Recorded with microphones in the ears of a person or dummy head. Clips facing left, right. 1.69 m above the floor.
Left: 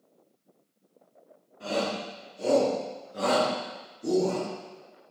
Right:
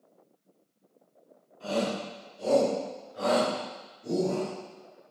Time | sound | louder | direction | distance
1.6 | a shout | even | 25° left (ahead or behind) | 4.5 m